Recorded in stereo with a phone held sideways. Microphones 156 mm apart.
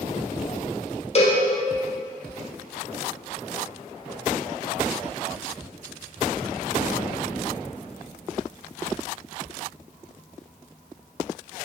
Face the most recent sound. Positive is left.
turn(degrees=45)  # may be behind; listen again after turning